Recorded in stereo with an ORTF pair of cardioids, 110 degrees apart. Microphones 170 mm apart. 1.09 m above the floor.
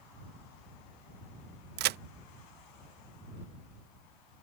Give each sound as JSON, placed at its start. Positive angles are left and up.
{"t": 1.8, "sound": "a crack", "azimuth_deg": -70}